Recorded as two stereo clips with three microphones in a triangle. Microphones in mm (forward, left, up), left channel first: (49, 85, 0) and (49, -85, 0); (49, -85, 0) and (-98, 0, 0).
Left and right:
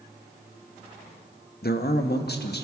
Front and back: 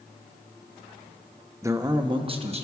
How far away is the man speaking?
About 0.6 m.